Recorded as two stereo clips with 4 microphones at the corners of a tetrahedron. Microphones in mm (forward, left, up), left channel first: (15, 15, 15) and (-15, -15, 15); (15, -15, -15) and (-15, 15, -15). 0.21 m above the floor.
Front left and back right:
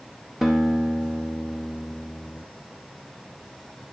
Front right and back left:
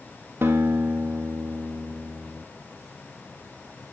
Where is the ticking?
No ticking in this recording.